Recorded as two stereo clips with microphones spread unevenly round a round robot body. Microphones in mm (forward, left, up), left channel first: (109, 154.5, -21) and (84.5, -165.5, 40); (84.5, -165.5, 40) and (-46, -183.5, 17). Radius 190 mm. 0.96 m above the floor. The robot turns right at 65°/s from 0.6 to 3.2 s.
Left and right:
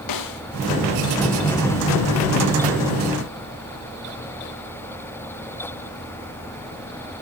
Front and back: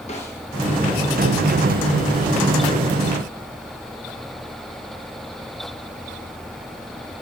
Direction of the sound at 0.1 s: 75° left.